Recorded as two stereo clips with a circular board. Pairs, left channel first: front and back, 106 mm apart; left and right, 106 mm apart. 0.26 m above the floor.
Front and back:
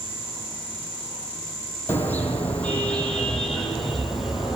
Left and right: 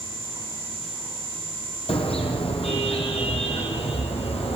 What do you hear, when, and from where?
1.9 s a car horn: 70° left, 5.5 m; by 4.5 s 95° left, 5.5 m